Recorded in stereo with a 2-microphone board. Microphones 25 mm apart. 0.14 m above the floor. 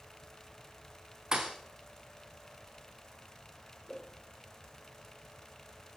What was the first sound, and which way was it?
A thud, 30° right (ahead or behind).